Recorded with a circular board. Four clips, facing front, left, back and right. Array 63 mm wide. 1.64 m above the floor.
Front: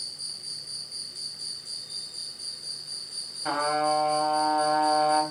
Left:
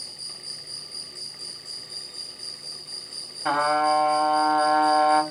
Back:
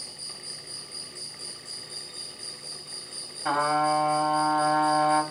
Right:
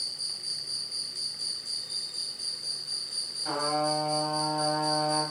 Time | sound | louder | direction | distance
0.0 | an insect | right 1 dB, back 1 dB | 55° right | 2.5 m
3.5 | a trumpet | left 8 dB, back 2 dB | 95° left | 2 m